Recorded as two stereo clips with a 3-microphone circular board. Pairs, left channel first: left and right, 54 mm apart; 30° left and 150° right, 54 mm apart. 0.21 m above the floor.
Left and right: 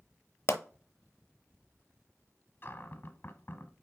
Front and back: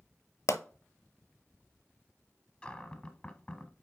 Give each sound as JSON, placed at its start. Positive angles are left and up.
{"t": 0.5, "sound": "a pop", "azimuth_deg": 45, "distance_m": 0.7}
{"t": 2.6, "sound": "a cupboard door", "azimuth_deg": 90, "distance_m": 0.9}